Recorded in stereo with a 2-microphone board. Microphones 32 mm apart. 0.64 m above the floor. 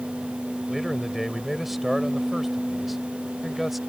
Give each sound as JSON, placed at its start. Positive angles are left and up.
{"t": 0.7, "sound": "a man speaking", "side_deg": -5}